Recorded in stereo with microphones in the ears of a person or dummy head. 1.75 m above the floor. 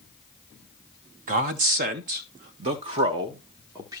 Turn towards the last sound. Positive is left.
turn(degrees=-15)  # may be behind; listen again after turning